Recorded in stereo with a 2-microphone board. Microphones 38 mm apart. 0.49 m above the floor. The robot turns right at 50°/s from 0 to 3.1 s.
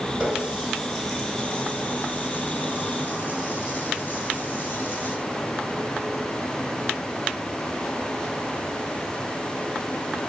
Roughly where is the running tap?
Right.